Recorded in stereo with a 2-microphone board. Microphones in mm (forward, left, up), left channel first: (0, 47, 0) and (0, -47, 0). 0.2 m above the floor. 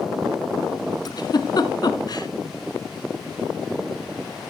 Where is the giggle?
45° left (ahead or behind), 1.2 m.